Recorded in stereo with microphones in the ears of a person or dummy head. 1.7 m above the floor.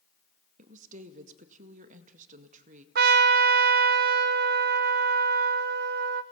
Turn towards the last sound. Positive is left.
turn(degrees=-50)  # may be behind; listen again after turning